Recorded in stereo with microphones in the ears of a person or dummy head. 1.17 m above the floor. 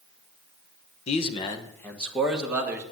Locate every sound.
1.1 s a man speaking: 35° left (ahead or behind), 1.2 m; by 2.8 s 20° right (ahead or behind), 1.7 m